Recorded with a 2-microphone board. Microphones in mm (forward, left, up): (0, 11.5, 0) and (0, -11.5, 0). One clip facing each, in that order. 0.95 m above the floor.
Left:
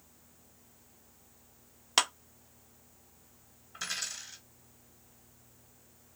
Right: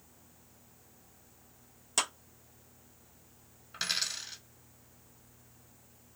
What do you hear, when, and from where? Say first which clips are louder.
2.0 s a clap: left 5 dB; 45° left (ahead or behind), 0.8 m
3.7 s a dropped coin: right 4 dB; 55° right (ahead or behind), 1.6 m